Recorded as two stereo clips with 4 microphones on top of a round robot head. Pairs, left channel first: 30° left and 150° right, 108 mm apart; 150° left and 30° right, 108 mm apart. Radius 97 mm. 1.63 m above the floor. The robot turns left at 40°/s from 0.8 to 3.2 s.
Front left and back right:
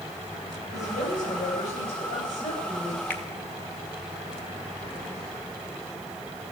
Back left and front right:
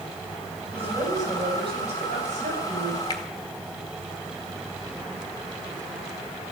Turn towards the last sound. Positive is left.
turn(degrees=100)